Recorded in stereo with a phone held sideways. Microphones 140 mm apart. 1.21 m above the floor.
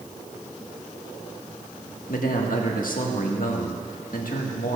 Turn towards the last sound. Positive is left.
turn(degrees=80)